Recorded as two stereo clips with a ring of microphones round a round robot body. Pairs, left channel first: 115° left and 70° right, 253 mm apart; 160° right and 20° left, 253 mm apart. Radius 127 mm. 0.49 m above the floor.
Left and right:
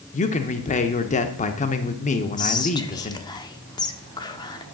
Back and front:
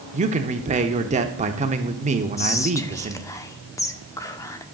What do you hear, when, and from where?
0.1 s a man speaking: 70° left, 0.9 m
2.4 s whispering: 150° left, 0.8 m